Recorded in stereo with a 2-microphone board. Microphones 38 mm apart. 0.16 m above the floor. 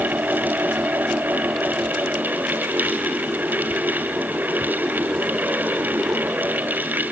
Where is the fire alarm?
No fire alarm in this recording.